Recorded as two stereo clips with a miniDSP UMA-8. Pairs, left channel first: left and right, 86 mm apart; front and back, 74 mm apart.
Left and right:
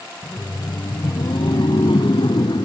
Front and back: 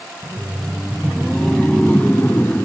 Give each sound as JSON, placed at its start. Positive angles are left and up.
{"t": 0.2, "sound": "laughter", "azimuth_deg": 130}